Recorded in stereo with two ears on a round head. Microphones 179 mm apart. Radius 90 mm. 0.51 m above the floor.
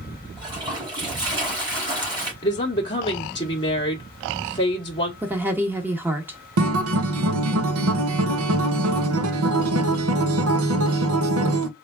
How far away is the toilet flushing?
About 3 m.